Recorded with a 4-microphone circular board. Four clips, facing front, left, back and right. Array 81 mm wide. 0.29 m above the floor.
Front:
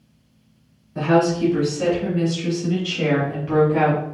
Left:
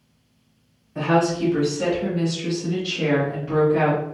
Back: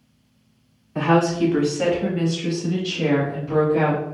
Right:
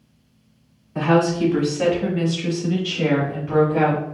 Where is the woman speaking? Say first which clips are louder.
Right 2 dB, front 1 dB; 145° right, 1.9 m; by 4.0 s straight ahead, 1.8 m.